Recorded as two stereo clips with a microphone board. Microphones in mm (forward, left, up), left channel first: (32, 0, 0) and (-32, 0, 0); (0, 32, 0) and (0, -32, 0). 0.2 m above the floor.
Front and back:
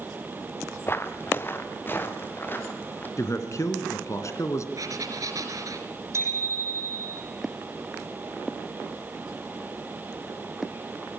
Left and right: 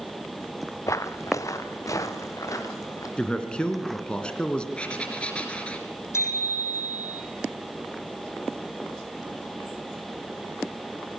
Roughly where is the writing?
Behind.